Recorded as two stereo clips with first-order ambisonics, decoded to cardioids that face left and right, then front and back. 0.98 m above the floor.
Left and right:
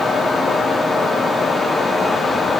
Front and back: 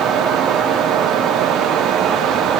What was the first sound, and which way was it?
Only background noise.